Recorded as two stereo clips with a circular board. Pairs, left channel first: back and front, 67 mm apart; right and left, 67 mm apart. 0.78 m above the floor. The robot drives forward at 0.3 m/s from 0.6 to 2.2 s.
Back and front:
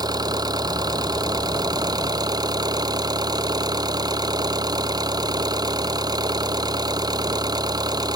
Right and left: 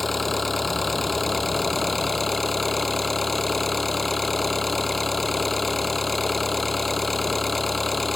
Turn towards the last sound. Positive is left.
turn(degrees=-5)